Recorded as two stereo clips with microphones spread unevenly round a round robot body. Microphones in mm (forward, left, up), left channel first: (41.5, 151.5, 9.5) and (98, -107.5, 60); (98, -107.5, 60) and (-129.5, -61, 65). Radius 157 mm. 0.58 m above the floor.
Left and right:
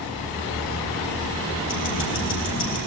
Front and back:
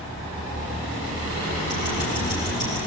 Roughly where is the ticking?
Ahead left.